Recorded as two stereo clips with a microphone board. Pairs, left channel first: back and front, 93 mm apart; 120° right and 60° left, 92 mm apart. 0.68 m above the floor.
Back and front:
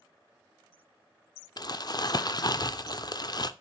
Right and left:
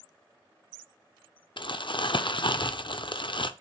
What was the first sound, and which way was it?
Crumpling, 140° right.